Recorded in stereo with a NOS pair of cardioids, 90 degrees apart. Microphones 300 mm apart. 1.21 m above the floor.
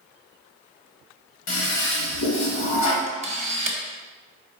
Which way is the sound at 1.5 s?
70° left.